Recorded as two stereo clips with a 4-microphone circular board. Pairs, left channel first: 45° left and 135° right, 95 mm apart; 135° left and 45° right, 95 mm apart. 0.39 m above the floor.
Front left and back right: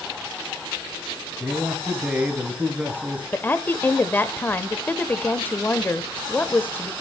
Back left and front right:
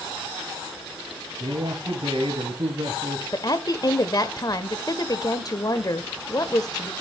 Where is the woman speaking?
110° left, 1.2 m.